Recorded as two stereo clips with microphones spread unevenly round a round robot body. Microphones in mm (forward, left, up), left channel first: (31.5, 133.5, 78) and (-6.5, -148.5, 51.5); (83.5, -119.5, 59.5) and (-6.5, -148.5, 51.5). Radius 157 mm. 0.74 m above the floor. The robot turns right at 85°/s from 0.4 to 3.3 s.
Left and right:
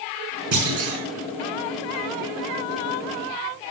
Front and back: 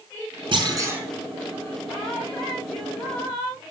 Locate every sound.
0.5 s a clunk: 130° right, 4 m; by 1.0 s 90° right, 4 m